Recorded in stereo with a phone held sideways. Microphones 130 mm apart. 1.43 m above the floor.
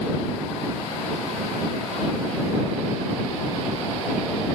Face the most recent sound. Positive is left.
No sound to turn to.